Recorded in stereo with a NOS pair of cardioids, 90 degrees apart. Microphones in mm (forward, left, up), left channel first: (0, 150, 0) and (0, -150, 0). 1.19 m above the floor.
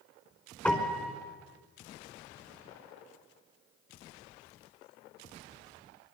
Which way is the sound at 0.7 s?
5° left.